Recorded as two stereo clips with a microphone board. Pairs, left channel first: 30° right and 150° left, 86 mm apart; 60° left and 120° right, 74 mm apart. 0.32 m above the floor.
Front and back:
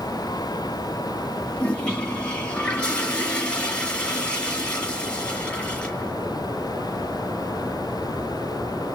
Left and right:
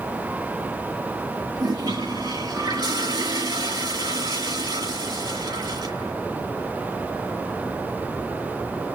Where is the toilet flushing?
105° right, 6.5 m.